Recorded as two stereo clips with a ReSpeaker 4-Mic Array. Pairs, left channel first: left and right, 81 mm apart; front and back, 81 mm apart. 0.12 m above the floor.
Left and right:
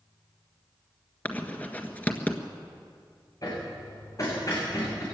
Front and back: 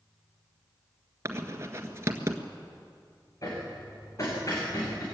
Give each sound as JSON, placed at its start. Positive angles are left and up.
{"t": 1.2, "sound": "writing", "azimuth_deg": 150, "distance_m": 1.7}
{"t": 3.4, "sound": "hammering", "azimuth_deg": 45, "distance_m": 8.0}